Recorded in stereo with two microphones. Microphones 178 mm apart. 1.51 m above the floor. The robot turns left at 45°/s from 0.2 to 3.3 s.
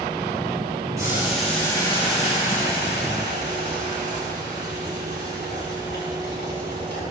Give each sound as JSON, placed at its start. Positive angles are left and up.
{"t": 1.0, "sound": "boiling", "azimuth_deg": -160, "distance_m": 6.5}